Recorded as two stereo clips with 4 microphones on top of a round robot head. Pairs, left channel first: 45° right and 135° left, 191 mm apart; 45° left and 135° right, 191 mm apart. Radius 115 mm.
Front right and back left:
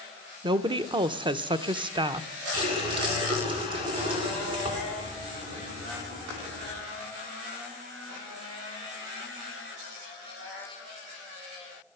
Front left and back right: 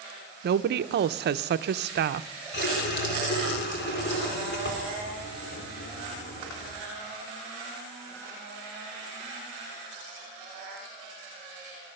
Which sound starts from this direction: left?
A running tap, at 2.5 s.